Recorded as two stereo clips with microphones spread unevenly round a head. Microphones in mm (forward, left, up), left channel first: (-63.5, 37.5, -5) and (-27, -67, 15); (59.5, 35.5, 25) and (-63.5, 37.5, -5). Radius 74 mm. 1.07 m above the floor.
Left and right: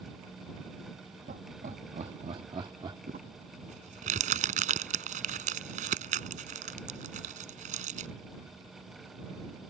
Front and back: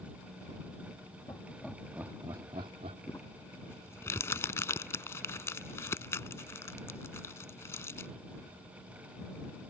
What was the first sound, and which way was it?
Laughter, 70° right.